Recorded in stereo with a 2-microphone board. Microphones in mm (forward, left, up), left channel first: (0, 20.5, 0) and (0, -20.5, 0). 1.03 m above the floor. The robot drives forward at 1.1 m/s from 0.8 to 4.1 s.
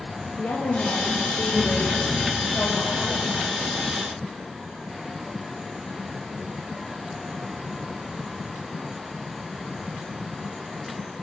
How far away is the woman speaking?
About 1.5 m.